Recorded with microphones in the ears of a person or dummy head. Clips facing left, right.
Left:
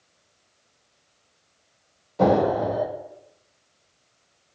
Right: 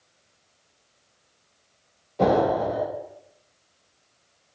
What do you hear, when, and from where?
2.2 s an explosion: 15° left (ahead or behind), 1.5 m